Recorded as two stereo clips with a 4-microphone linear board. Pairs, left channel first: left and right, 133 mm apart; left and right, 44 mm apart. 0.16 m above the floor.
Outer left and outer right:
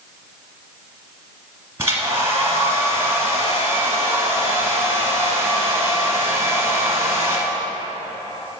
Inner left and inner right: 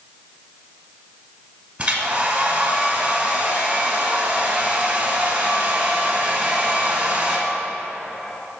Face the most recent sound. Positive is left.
turn(degrees=-20)  # may be behind; listen again after turning